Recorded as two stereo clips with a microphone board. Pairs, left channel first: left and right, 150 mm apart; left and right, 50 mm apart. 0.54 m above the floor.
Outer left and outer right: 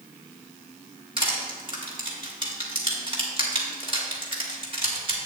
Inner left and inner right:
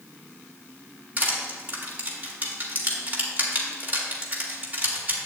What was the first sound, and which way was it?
Crushing, 35° right (ahead or behind).